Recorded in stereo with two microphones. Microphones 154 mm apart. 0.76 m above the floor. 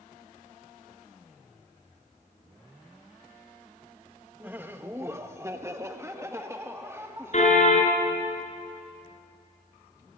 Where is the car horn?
50° left (ahead or behind), 4 m.